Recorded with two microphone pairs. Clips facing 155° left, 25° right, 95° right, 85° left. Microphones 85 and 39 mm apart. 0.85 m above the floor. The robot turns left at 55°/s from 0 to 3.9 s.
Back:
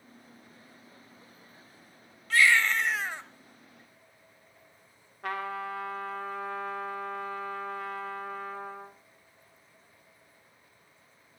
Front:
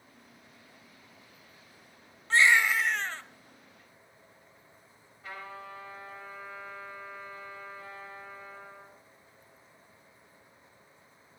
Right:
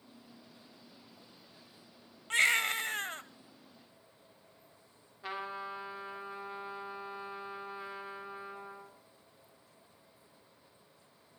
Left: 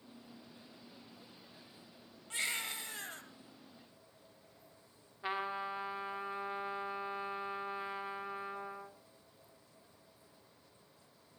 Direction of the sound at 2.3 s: 85° right.